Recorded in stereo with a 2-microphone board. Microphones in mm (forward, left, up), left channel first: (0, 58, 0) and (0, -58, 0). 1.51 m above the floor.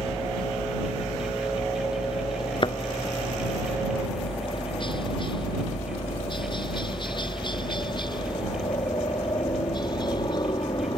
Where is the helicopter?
45° left (ahead or behind); by 11.0 s 35° left (ahead or behind).